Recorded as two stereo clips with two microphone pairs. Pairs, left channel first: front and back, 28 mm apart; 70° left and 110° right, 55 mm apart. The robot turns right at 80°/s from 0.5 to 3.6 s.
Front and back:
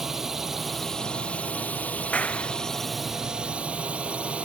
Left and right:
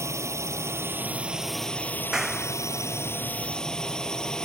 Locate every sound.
0.0 s a drone: 105° right; by 4.5 s 145° left
2.1 s a clap: 30° right; by 2.5 s 5° left